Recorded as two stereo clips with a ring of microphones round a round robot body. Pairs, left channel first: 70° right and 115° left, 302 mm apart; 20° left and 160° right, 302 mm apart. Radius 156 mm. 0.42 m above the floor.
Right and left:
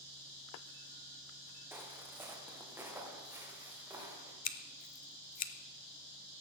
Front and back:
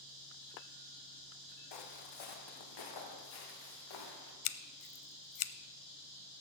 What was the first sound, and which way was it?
Footsteps, 30° left.